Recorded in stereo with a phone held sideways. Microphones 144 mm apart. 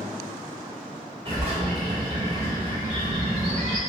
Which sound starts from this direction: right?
A bird, at 1.2 s.